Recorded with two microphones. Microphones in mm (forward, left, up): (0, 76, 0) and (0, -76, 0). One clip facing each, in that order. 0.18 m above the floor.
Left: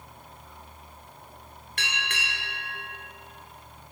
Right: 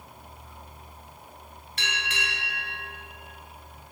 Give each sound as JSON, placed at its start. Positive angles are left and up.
{"t": 1.8, "sound": "a bell", "side_deg": 55, "distance_m": 1.7}